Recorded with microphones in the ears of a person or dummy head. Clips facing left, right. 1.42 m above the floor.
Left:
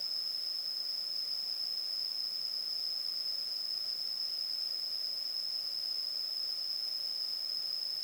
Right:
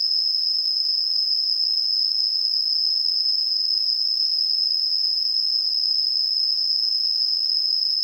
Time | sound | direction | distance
0.0 | an insect | 80° right | ?